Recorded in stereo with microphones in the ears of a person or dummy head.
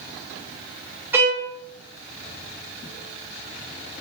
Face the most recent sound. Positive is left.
turn(degrees=-10)  # may be behind; listen again after turning